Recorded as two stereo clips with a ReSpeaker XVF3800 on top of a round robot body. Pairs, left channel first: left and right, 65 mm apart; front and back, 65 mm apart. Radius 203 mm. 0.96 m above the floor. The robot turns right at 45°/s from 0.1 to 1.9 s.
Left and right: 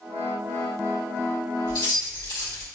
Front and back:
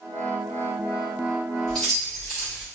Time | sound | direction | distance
1.7 | keys jangling | 80° left | 1.6 m